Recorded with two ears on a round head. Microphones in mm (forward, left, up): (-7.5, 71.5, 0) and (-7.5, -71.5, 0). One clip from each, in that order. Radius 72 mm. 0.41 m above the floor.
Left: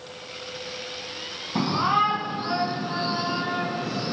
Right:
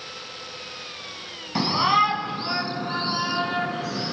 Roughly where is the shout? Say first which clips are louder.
Right 3 dB; right.